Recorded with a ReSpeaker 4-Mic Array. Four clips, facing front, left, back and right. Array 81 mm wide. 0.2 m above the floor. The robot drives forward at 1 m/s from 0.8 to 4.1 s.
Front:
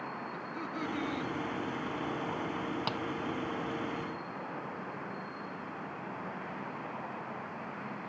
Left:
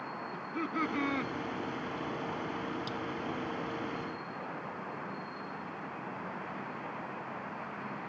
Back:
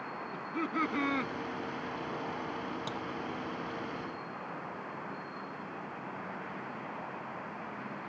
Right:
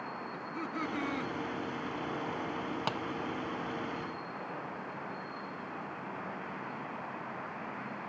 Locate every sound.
0.3 s laughter: 150° left; by 1.3 s 160° left
2.9 s tapping: 65° right